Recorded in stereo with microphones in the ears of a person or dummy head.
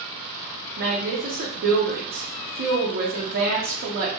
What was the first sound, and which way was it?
A woman speaking, 55° right (ahead or behind).